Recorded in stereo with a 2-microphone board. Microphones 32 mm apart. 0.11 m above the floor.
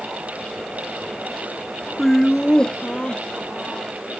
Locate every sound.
2.0 s laughter: 5° left (ahead or behind); by 3.9 s 40° left (ahead or behind)